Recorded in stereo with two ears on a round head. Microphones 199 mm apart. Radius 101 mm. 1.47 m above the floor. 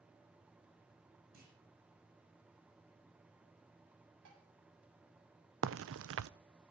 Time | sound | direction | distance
1.3 | a clunk | 45° right (ahead or behind) | 8 m
4.2 | dishes clattering | 75° right (ahead or behind) | 7.5 m
5.6 | a crack | 65° right (ahead or behind) | 0.7 m